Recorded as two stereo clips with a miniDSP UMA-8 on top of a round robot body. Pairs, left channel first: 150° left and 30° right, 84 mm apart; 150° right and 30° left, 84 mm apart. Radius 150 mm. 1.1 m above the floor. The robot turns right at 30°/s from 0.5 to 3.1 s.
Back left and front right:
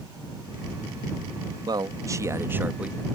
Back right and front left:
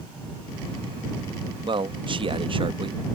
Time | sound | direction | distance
1.7 | a man speaking | 5° left | ?